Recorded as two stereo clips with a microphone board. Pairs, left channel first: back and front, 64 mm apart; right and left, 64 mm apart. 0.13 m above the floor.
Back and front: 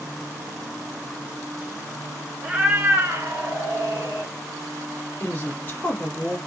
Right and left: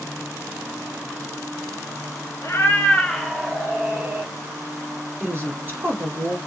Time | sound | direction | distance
2.4 | a cat meowing | 70° right | 0.7 m
5.2 | a woman speaking | 125° left | 1.7 m